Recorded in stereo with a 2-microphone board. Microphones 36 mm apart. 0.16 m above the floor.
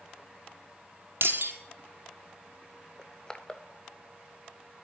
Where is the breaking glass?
70° right (ahead or behind), 2.5 m.